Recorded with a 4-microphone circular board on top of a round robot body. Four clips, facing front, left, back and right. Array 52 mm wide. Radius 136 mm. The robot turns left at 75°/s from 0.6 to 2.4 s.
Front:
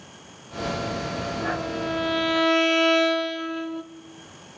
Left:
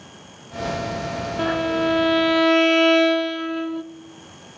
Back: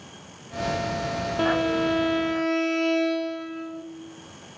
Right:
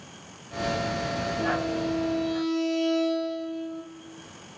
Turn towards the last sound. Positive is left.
turn(degrees=60)